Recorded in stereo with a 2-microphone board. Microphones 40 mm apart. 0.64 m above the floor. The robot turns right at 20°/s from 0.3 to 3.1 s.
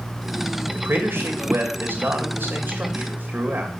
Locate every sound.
0.7 s a man speaking: 95° right, 2.5 m; by 3.7 s 50° right, 2.5 m